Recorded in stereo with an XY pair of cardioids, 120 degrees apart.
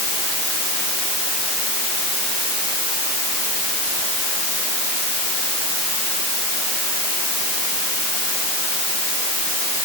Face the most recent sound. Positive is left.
No sound to turn to.